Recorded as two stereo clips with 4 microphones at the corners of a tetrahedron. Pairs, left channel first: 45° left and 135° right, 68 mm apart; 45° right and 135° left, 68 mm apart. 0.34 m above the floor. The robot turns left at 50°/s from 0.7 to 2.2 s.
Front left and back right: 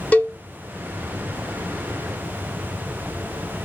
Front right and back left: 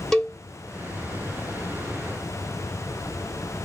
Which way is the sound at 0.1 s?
30° left.